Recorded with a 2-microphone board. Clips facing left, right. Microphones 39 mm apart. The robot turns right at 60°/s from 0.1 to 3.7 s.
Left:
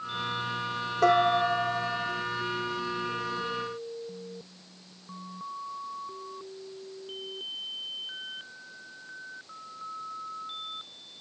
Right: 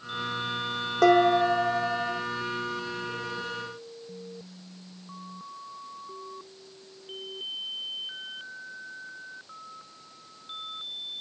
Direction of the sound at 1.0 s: 85° right.